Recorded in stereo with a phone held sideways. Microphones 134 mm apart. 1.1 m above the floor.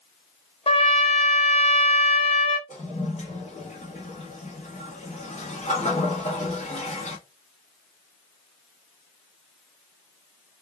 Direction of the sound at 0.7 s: 45° left (ahead or behind).